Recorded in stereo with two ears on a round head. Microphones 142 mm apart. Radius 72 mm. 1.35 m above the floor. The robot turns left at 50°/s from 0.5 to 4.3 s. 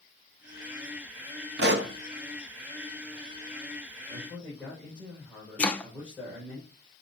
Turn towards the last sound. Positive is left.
turn(degrees=10)  # may be behind; listen again after turning